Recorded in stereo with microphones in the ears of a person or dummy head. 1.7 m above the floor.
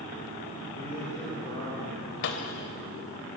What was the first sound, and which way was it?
A man speaking, 30° left (ahead or behind).